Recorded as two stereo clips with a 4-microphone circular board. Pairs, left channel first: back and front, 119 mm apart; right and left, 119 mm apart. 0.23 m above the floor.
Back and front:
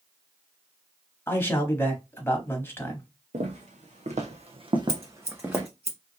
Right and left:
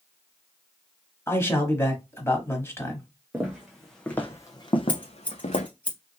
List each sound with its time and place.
1.3 s a man speaking: 135° right, 1.0 m
3.3 s footsteps: 15° left, 1.1 m; by 5.7 s 80° right, 1.0 m
4.9 s scissors: 15° right, 1.1 m